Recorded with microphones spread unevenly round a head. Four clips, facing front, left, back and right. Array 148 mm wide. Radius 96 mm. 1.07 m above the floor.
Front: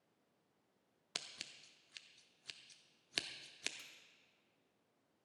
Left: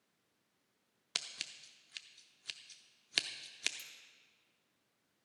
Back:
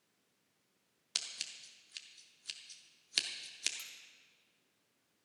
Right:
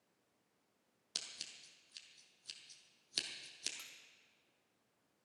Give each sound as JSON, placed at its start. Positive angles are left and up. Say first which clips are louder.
{"t": 1.1, "sound": "scissors", "louder": "left 6 dB, back 2 dB", "azimuth_deg": 5, "distance_m": 0.6}
{"t": 3.8, "sound": "cutlery clinking", "louder": "even, back 5 dB", "azimuth_deg": -125, "distance_m": 1.2}